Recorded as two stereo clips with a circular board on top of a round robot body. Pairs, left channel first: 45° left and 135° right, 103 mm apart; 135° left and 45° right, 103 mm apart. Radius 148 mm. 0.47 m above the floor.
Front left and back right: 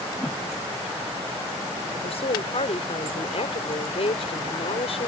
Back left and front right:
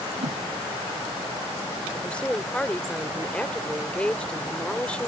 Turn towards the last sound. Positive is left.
turn(degrees=55)